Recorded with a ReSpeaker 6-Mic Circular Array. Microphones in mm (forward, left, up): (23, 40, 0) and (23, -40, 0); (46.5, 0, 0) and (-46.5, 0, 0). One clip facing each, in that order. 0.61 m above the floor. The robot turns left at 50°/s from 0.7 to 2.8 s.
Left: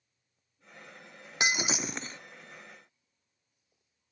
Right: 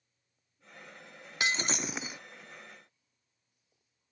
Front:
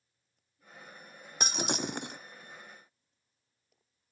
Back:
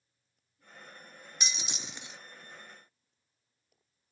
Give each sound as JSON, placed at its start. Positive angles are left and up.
{"t": 1.4, "sound": "breaking glass", "azimuth_deg": 25}